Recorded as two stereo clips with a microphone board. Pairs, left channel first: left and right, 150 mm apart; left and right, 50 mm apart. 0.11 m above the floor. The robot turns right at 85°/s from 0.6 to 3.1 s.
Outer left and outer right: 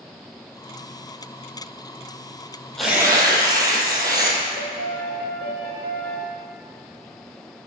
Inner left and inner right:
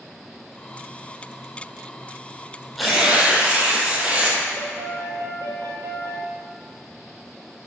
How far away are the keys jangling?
No keys jangling in this recording.